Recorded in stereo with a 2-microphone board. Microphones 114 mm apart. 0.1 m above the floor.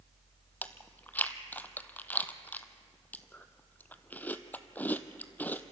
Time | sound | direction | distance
0.6 | chewing | 15° left (ahead or behind) | 0.9 m